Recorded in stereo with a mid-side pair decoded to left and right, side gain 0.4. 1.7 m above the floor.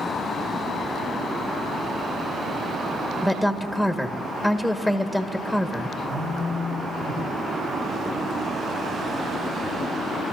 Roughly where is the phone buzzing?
Ahead right.